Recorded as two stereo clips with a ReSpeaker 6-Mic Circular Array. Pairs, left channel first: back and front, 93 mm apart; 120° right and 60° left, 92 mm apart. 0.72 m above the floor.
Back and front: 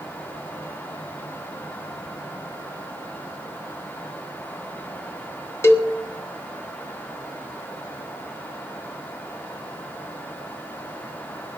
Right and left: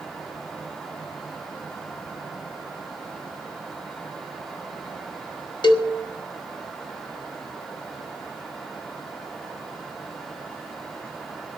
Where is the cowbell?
125° right, 1.3 m.